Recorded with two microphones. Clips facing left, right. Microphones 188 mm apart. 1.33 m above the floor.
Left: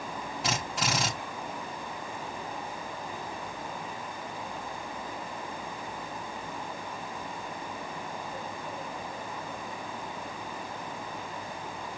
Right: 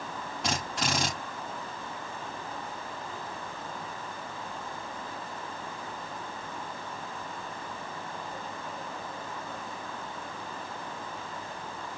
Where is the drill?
Centre (ahead or behind), 5.5 m.